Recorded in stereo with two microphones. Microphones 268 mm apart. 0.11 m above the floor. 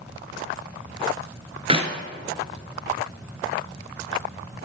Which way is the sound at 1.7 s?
20° right (ahead or behind).